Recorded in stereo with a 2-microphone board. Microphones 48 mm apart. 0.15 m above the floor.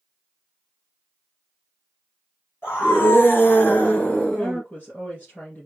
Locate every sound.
2.6 s a scream: 55° left (ahead or behind), 3 m; by 4.6 s 10° left (ahead or behind), 1.6 m
4.4 s a woman speaking: 35° left (ahead or behind), 2.5 m